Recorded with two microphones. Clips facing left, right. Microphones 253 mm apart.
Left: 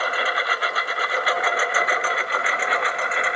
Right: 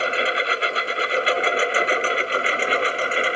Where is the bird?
I don't hear a bird.